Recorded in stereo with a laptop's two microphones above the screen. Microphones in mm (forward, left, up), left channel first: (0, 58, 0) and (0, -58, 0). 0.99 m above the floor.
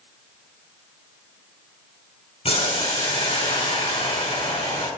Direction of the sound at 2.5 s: 60° left (ahead or behind).